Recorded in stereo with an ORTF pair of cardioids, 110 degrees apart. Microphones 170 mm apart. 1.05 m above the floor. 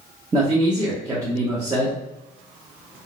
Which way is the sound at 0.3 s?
20° right.